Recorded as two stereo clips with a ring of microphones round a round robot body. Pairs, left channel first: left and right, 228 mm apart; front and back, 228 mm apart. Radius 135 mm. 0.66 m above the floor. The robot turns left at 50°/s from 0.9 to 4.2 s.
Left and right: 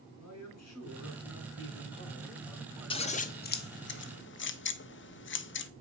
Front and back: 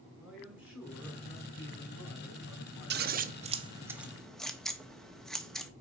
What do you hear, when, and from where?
0.2 s a man speaking: 90° left, 4 m; by 3.3 s 30° right, 4 m
2.9 s scissors: 155° left, 1.1 m; by 5.7 s 90° left, 1.1 m